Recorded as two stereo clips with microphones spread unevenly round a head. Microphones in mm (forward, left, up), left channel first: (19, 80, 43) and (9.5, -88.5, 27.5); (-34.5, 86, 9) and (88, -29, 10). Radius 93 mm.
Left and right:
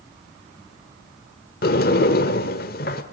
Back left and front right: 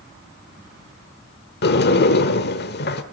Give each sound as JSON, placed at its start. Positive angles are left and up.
{"t": 1.6, "sound": "a sliding door", "azimuth_deg": 120, "distance_m": 1.4}